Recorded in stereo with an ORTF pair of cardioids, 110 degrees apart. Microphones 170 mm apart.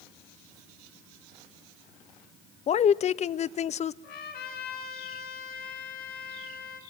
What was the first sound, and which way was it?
A woman speaking, 45° left.